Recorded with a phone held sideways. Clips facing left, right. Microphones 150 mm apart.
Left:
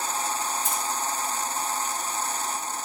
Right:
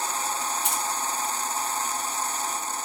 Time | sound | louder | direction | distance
0.6 | keys jangling | even | 70° right (ahead or behind) | 0.8 m